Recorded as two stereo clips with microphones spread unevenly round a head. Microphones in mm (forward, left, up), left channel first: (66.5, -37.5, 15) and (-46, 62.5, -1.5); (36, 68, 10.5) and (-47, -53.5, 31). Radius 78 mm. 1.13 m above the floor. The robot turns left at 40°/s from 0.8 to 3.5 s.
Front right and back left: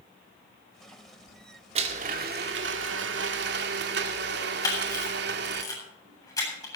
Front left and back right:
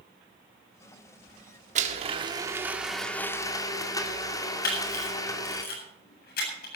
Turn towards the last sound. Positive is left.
turn(degrees=25)